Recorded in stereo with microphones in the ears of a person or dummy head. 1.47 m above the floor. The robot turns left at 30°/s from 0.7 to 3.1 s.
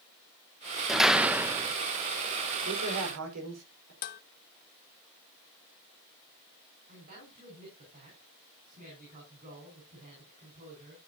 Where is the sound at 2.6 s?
70° right (ahead or behind), 5.5 m; by 3.9 s 85° right, 5.5 m.